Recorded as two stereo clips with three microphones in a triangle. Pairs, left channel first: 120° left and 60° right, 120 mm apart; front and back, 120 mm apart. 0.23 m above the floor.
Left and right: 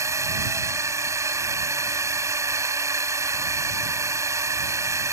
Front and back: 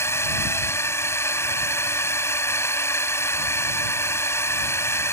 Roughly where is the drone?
Ahead right.